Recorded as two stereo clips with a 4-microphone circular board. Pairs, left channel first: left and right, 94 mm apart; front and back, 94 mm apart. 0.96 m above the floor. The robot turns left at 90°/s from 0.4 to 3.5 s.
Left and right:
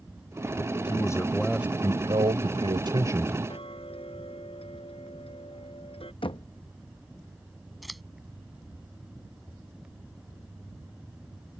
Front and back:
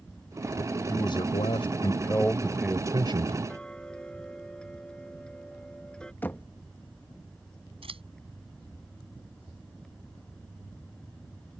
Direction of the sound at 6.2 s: 70° left.